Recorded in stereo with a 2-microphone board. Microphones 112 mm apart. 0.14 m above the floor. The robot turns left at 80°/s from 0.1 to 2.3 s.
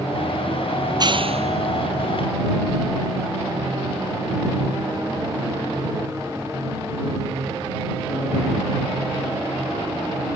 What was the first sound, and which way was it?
A clap, 25° right (ahead or behind).